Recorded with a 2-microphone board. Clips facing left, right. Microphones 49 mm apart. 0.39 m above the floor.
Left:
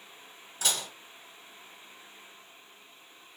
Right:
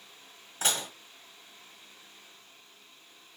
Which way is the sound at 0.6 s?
30° right (ahead or behind).